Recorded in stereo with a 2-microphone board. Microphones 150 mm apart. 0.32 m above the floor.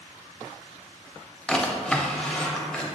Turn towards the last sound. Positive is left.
turn(degrees=5)  # may be behind; listen again after turning